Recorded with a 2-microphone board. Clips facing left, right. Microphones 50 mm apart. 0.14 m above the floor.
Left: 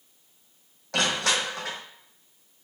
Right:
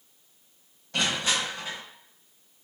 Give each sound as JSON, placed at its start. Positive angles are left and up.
{"t": 0.9, "sound": "crushing", "side_deg": 80, "distance_m": 1.1}